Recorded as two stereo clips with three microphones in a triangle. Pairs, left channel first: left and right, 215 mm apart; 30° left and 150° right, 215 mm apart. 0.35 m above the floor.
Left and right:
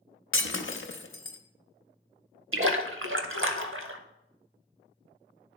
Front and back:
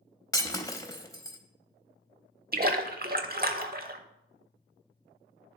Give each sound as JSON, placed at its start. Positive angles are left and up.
{"t": 0.3, "sound": "breaking glass", "azimuth_deg": 100, "distance_m": 0.6}
{"t": 2.5, "sound": "a splash", "azimuth_deg": -105, "distance_m": 0.7}